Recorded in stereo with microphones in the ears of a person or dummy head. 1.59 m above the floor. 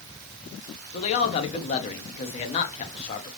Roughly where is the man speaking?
Left.